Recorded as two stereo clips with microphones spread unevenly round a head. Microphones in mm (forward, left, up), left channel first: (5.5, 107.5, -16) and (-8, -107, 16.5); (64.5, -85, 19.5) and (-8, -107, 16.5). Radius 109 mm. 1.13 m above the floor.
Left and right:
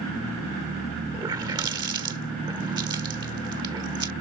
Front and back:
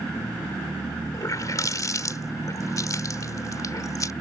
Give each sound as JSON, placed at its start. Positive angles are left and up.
{"t": 1.1, "sound": "a running tap", "azimuth_deg": -20}